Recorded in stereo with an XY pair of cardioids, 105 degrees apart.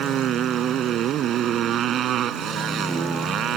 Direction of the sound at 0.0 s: 70° right.